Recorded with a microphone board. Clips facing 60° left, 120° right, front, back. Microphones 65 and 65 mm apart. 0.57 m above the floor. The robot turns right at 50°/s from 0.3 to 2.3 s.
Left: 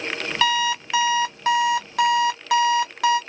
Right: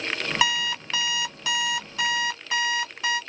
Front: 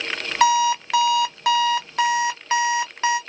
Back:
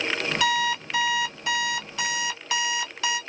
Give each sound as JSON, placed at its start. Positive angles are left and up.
{"t": 0.4, "sound": "an alarm clock", "azimuth_deg": -40, "distance_m": 1.0}